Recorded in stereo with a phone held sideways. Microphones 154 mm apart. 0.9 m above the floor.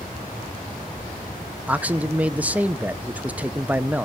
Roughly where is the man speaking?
Centre.